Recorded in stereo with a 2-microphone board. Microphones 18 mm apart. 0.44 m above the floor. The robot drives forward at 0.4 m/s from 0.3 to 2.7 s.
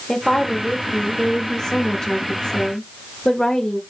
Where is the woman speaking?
25° left (ahead or behind), 1.2 m; by 3.8 s 30° left (ahead or behind), 1.0 m.